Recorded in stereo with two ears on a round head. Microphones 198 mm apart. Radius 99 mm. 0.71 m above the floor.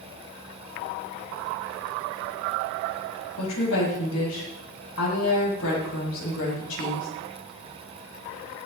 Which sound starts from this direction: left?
A woman speaking, at 3.4 s.